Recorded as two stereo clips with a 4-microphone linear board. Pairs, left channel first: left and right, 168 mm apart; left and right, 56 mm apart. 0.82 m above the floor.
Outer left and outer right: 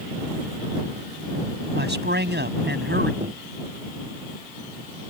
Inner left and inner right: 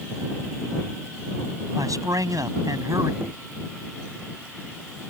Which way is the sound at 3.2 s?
45° right (ahead or behind).